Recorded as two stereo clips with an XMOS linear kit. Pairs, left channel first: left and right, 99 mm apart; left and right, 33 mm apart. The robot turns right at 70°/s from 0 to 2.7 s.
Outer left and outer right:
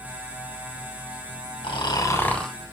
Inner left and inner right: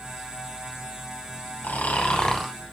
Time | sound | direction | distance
1.6 | snoring | 120° left | 3 m